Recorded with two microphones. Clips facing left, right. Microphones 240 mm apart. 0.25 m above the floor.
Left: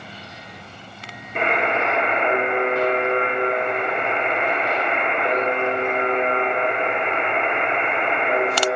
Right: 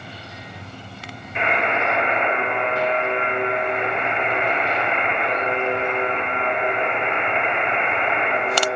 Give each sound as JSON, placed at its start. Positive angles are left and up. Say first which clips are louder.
{"t": 1.4, "sound": "a buzzer", "louder": "left 2 dB", "side_deg": 50, "distance_m": 2.0}